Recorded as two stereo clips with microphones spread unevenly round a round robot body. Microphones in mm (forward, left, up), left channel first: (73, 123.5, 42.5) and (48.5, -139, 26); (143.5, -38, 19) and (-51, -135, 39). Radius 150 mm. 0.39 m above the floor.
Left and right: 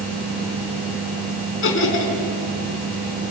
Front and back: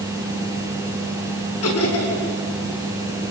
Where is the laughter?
45° left, 5.5 m.